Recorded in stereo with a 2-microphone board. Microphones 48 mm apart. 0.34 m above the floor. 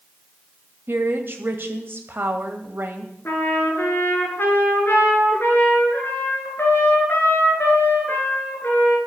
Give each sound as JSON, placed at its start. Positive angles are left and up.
{"t": 0.9, "sound": "a woman speaking", "side_deg": -50, "distance_m": 2.0}
{"t": 3.2, "sound": "a trumpet", "side_deg": 50, "distance_m": 3.5}